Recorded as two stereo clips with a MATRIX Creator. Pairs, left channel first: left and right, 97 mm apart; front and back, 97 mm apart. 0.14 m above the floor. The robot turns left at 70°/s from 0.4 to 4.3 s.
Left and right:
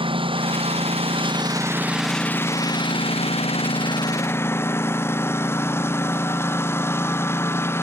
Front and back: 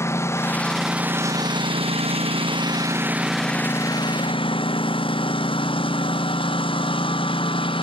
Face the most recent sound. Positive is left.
turn(degrees=25)